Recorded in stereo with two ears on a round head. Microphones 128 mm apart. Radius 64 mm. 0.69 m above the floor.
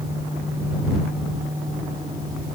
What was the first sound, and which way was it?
Only background noise.